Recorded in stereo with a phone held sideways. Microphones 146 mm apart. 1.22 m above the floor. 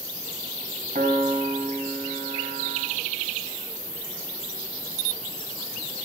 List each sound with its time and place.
0.9 s a piano: 60° right (ahead or behind), 2 m